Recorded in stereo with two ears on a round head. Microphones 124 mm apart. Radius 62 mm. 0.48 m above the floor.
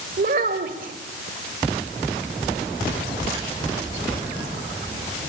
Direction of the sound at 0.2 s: 65° right (ahead or behind).